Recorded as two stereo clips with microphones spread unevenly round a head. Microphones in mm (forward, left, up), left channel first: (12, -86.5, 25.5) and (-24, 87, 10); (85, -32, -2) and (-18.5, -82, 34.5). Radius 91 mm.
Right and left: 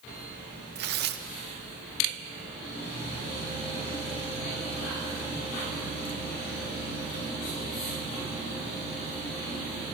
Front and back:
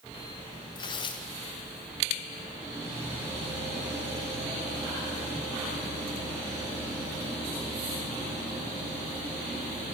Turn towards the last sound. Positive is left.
turn(degrees=75)